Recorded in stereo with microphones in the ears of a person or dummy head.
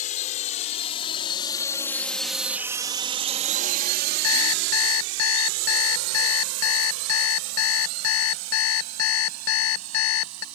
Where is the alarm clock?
80° left.